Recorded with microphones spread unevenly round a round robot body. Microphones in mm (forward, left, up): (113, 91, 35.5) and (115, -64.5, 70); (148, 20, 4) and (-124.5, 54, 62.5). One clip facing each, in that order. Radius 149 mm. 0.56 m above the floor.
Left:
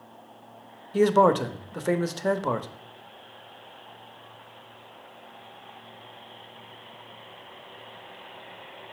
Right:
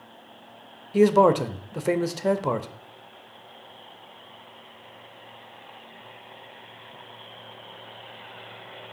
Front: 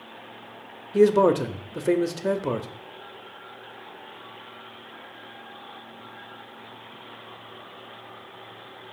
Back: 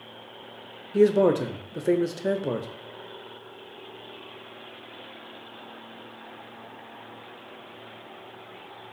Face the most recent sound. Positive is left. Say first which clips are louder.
# right 2 dB, front 1 dB
turn(degrees=10)